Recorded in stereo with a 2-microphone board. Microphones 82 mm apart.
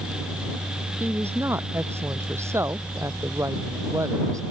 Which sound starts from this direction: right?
A woman speaking, at 1.0 s.